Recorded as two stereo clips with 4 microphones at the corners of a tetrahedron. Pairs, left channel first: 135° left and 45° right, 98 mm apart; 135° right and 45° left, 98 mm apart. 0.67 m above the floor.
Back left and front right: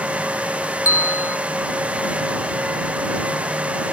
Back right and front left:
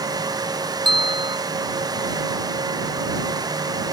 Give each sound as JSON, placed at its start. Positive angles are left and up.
{"t": 0.8, "sound": "a bell", "azimuth_deg": 75}